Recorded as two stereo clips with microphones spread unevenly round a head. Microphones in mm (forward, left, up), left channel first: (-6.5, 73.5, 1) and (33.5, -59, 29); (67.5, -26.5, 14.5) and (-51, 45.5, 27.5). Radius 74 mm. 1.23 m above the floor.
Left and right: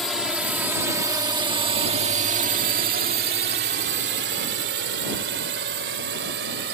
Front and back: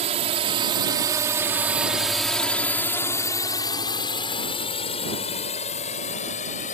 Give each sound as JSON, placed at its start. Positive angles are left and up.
{"t": 0.0, "sound": "a drone", "azimuth_deg": -165}